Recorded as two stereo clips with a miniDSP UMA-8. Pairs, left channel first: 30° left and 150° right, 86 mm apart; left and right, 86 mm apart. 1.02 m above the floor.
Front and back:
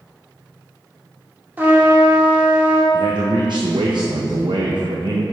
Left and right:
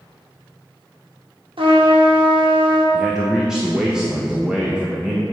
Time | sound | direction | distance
1.6 | a trumpet | 80° right | 1.2 m
2.9 | a man speaking | 170° right | 0.6 m